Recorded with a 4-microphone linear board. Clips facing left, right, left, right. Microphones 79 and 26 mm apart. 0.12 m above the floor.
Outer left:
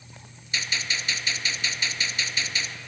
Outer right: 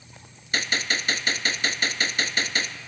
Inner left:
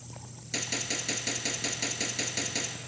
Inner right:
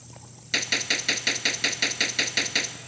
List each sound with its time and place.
0.5 s a gunshot: 55° right (ahead or behind), 0.6 m